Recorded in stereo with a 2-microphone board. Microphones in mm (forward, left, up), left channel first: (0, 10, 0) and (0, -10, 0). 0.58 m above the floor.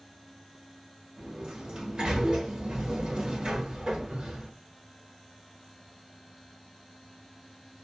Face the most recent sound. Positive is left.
turn(degrees=-55)  # may be behind; listen again after turning